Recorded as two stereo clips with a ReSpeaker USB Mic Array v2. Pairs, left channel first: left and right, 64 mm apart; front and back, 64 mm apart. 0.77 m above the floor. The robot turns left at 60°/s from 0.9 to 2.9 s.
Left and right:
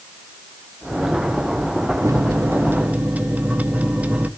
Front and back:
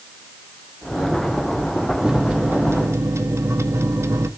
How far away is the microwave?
About 0.9 m.